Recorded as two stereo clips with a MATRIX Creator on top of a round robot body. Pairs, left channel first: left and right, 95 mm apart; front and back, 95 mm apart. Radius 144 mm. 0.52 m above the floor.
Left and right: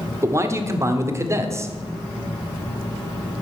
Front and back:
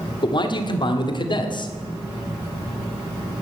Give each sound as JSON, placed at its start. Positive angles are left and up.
{"t": 0.2, "sound": "a man speaking", "azimuth_deg": -30, "distance_m": 1.6}